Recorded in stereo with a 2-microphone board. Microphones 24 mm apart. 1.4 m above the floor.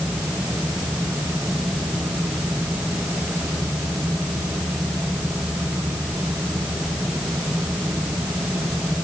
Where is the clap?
No clap in this recording.